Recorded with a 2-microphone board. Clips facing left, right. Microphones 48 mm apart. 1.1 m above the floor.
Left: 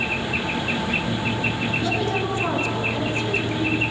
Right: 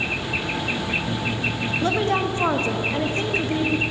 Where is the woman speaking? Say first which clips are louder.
Right 5 dB; 40° right (ahead or behind), 1.5 m.